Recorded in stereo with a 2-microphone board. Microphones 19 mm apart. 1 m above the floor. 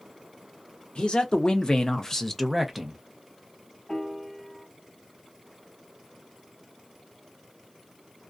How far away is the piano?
About 1.3 m.